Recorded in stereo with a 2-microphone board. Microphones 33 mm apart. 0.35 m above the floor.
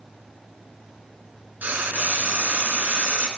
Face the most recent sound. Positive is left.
turn(degrees=-85)